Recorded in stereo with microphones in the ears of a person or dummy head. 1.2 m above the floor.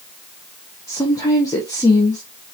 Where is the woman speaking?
15° left (ahead or behind), 1.0 m.